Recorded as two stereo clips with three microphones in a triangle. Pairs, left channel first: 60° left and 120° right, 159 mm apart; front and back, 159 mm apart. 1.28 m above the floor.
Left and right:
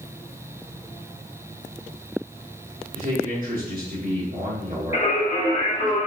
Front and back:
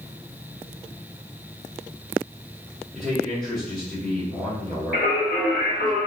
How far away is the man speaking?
About 1.8 m.